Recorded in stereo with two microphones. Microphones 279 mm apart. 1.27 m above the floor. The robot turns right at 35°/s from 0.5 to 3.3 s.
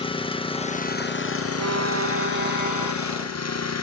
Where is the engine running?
20° left, 0.8 m; by 3.8 s 115° left, 0.8 m.